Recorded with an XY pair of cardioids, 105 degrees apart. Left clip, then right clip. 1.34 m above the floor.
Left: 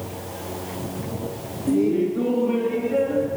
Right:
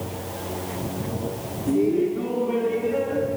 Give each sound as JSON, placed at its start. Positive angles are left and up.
{"t": 1.7, "sound": "laughter", "azimuth_deg": 45, "distance_m": 1.6}